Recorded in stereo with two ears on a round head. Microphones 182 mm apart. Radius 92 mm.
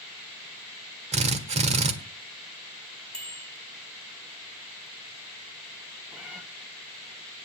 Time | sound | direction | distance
1.1 | a drill | 35° right (ahead or behind) | 1.6 m
3.1 | a bicycle bell | 5° left (ahead or behind) | 5.5 m
6.1 | a cat meowing | 5° right (ahead or behind) | 1.8 m